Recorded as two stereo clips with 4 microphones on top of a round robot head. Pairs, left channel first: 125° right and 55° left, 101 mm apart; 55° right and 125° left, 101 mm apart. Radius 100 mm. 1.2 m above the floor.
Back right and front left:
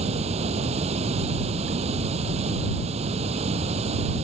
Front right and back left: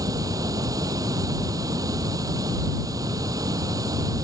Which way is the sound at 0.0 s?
70° left.